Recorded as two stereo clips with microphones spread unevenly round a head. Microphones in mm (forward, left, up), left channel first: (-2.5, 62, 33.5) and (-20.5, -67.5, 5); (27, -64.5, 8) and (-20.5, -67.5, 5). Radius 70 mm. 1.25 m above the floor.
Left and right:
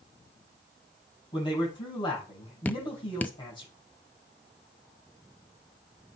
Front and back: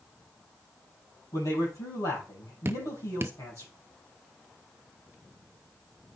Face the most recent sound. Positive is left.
turn(degrees=170)